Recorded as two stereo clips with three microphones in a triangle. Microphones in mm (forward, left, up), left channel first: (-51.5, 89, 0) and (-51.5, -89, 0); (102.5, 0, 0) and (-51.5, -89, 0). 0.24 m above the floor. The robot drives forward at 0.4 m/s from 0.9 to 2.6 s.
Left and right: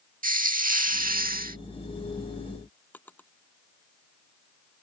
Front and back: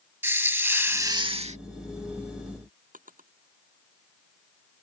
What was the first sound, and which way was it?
A hiss, 75° right.